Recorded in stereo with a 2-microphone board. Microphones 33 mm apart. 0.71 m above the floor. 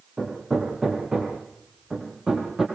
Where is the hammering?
15° right (ahead or behind), 6 m.